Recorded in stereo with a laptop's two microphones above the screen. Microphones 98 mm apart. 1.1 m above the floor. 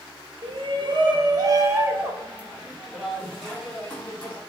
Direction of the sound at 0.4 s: 65° right (ahead or behind).